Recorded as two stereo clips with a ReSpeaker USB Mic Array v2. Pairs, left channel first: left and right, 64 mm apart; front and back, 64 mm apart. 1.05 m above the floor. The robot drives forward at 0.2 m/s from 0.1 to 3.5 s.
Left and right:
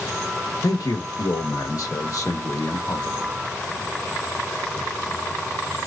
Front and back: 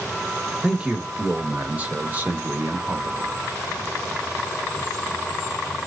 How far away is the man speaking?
About 1.0 m.